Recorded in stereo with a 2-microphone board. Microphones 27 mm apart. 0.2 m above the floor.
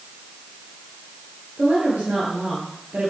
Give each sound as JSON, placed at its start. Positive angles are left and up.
{"t": 1.6, "sound": "a woman speaking", "side_deg": -70, "distance_m": 3.5}